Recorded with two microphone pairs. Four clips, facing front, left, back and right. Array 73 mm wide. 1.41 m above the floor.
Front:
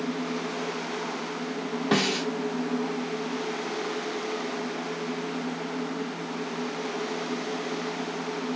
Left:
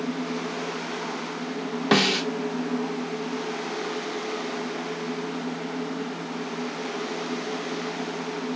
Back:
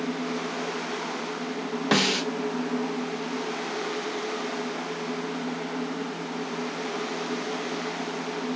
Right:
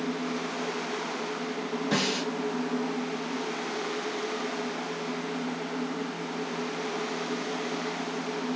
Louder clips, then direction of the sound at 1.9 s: Left 8 dB, back 1 dB; 120° left.